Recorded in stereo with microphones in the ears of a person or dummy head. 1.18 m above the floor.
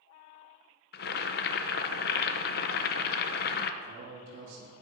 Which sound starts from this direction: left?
Boiling, at 0.9 s.